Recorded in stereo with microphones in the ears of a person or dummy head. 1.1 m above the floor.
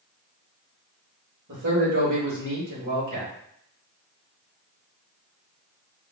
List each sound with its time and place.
1.5 s a man speaking: 65° right (ahead or behind), 2.5 m